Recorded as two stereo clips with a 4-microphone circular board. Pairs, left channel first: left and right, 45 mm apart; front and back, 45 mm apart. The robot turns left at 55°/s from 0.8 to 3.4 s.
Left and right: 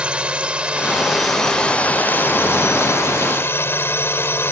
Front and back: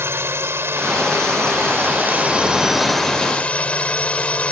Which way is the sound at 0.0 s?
155° right.